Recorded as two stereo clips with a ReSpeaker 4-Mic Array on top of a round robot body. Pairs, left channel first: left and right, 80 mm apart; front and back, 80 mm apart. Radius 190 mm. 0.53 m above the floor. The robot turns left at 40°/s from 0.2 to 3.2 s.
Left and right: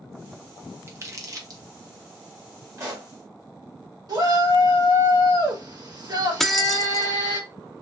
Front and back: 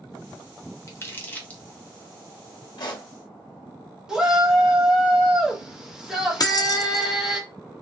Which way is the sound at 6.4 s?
5° left.